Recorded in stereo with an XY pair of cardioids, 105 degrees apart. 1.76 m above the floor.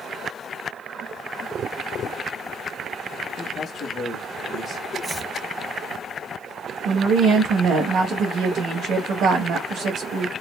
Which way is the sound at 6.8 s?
70° right.